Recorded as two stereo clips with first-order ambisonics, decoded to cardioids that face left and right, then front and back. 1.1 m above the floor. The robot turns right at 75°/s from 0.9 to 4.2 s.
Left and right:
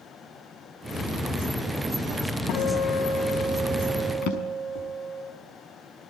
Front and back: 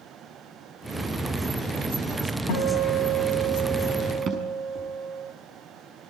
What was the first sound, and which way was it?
A guitar, 40° left.